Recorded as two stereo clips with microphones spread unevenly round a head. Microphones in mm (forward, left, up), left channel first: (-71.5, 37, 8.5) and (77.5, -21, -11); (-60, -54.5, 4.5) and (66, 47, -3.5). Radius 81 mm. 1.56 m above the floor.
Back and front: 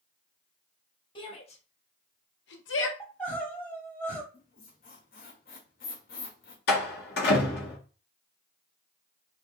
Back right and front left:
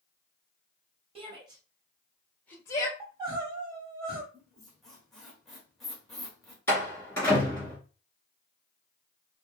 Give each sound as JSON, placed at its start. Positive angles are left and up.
{"t": 1.1, "sound": "a shout", "azimuth_deg": 95, "distance_m": 1.6}
{"t": 3.0, "sound": "crying", "azimuth_deg": 90, "distance_m": 1.7}
{"t": 4.3, "sound": "a squeak", "azimuth_deg": 130, "distance_m": 1.6}
{"t": 6.7, "sound": "a door slam", "azimuth_deg": 140, "distance_m": 2.5}